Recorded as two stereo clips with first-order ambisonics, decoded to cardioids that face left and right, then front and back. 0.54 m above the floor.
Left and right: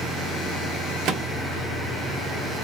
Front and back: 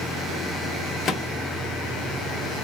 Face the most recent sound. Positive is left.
turn(degrees=-60)